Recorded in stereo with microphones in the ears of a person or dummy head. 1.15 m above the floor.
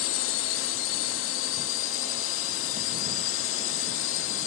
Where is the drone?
70° left (ahead or behind).